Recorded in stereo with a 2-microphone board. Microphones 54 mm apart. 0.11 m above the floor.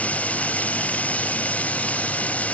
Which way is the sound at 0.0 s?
25° left (ahead or behind).